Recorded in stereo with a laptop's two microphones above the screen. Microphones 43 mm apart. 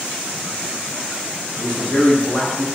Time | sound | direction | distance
1.6 | a man speaking | 40° left (ahead or behind) | 1.1 m